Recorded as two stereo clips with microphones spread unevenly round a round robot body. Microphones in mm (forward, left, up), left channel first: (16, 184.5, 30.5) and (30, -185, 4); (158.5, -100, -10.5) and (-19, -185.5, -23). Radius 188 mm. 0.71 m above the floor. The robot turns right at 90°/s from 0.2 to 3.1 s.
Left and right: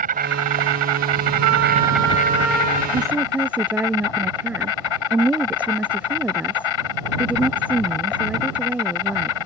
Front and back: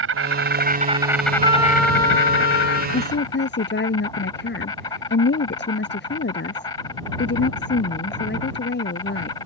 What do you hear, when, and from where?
0.0 s an insect: 155° right; by 9.5 s 105° left
1.4 s a trumpet: 95° right; by 2.8 s 30° left
2.9 s a woman speaking: 15° right; by 9.4 s straight ahead